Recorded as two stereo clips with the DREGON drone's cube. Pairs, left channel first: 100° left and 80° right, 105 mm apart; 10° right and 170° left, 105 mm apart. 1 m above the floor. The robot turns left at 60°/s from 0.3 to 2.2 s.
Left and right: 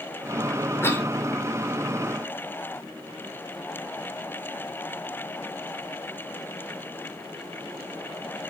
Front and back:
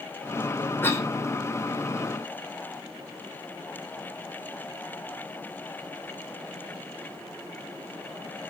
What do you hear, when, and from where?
0.8 s a cough: 45° left, 0.8 m; by 1.1 s 30° left, 0.8 m